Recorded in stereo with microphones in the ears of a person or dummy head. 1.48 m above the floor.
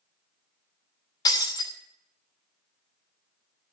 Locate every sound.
1.2 s breaking glass: 20° left (ahead or behind), 3 m